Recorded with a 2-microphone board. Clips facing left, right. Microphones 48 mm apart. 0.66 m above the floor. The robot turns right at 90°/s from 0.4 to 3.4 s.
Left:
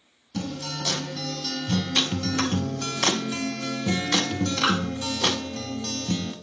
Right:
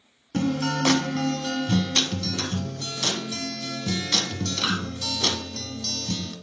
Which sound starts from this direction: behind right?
A guitar, at 0.3 s.